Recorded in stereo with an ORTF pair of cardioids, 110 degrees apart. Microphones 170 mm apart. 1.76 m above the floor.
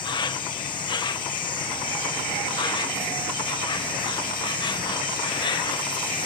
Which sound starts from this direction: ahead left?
An insect, at 0.0 s.